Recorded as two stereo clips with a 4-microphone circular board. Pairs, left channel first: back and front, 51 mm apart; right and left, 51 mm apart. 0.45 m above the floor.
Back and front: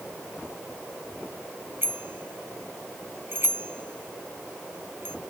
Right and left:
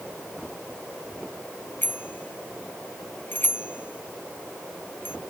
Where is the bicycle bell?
40° right.